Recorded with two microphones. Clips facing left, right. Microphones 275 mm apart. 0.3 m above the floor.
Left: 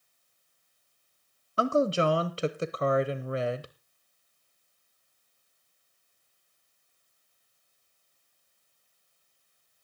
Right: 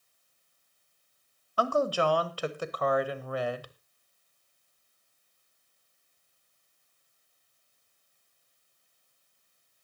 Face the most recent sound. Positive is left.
turn(degrees=25)  # may be behind; listen again after turning